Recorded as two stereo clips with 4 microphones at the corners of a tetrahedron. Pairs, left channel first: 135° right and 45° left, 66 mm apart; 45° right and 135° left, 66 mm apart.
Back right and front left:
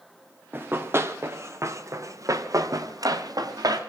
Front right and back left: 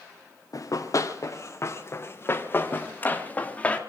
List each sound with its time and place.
0.5 s running footsteps: 15° right, 3 m; by 3.8 s 25° left, 3.5 m